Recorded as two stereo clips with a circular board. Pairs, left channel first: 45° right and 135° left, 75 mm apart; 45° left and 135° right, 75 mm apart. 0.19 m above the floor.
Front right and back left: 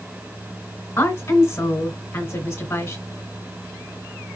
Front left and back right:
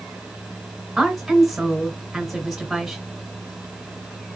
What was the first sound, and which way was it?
A woman speaking, 45° right.